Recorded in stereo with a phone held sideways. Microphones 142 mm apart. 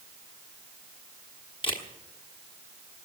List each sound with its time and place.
1.6 s a camera shutter: 35° left (ahead or behind), 1.3 m